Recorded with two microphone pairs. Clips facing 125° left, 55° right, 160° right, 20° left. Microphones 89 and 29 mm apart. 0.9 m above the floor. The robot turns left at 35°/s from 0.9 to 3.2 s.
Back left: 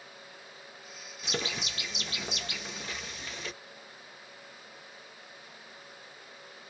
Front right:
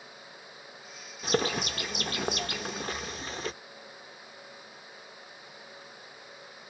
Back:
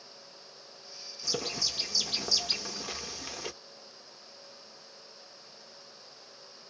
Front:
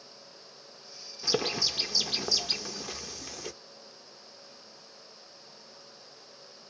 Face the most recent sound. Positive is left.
turn(degrees=-90)